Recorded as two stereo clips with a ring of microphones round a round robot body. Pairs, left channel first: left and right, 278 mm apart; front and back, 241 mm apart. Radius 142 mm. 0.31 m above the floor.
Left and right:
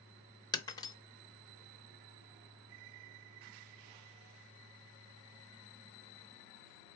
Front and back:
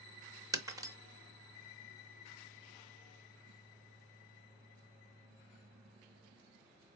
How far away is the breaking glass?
About 0.7 m.